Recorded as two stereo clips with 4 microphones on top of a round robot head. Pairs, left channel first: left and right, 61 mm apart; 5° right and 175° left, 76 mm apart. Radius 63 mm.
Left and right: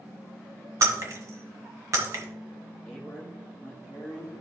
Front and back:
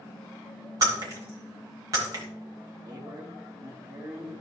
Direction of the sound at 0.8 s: 130° right.